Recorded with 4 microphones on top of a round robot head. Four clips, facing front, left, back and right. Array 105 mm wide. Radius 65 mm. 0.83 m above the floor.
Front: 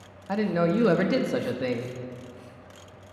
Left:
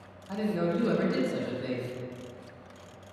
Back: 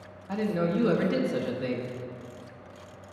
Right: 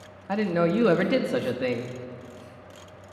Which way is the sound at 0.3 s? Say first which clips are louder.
Right 6 dB, front 3 dB; 55° right.